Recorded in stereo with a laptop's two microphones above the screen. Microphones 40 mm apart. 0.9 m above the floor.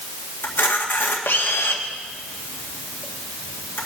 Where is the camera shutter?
60° left (ahead or behind), 1.7 m.